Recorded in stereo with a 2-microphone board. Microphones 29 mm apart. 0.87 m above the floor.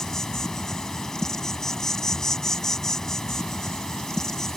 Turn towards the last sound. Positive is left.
turn(degrees=20)  # may be behind; listen again after turning